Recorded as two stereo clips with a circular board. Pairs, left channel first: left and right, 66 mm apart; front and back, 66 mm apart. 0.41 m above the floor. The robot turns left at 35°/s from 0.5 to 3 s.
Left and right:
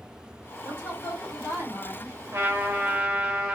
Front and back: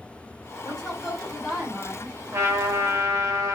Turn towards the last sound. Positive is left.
turn(degrees=-160)